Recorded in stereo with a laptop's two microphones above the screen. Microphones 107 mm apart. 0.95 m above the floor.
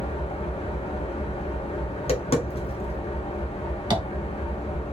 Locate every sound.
0.0 s an engine running: 70° left (ahead or behind), 0.9 m
1.9 s tapping: 70° left (ahead or behind), 1.0 m
3.9 s tapping: 50° right (ahead or behind), 1.2 m